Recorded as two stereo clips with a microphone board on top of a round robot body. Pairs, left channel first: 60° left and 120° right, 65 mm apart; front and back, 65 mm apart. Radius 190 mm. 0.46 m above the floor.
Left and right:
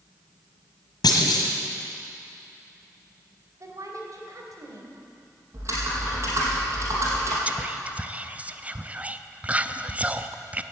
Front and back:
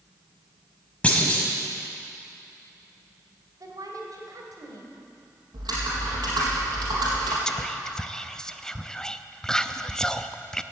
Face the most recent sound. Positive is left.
turn(degrees=-70)